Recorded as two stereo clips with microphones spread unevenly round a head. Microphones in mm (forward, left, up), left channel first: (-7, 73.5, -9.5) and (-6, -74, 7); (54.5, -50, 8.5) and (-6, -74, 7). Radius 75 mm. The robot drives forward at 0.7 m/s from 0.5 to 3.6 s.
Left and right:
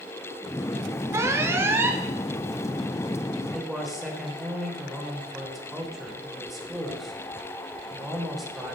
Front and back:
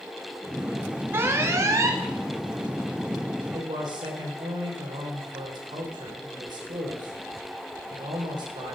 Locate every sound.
1.1 s an alarm: 160° right, 1.5 m; by 2.0 s 170° right, 1.9 m
3.4 s a man speaking: straight behind, 3 m